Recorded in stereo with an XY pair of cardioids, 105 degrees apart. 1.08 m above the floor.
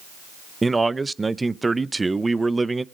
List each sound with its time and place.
0.6 s a man speaking: 20° right, 0.6 m